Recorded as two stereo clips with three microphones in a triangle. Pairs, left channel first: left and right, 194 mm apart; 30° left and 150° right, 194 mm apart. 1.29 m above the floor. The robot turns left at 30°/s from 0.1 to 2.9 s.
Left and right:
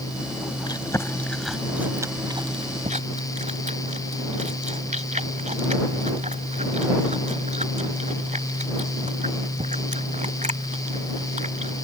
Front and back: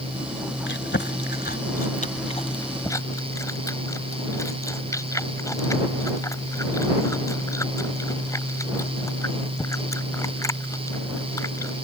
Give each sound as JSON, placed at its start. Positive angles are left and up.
{"t": 0.7, "sound": "chewing", "azimuth_deg": 25}